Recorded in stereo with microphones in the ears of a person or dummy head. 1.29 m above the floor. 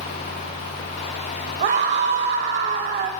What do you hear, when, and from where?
1.6 s a scream: 35° right (ahead or behind), 3 m